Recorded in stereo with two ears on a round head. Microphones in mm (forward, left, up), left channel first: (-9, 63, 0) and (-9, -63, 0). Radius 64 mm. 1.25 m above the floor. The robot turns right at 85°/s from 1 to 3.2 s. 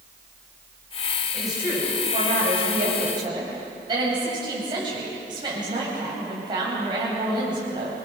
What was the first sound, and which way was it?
A woman speaking, 170° left.